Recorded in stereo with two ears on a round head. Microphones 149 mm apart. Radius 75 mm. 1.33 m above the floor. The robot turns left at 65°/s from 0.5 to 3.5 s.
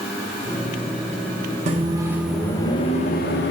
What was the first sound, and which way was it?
A microwave, 140° right.